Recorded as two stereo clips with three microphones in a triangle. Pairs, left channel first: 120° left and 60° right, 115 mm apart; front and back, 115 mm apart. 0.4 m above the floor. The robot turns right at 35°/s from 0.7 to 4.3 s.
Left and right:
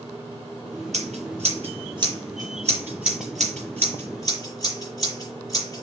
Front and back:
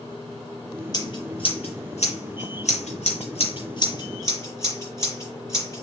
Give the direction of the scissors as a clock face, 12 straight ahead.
2 o'clock.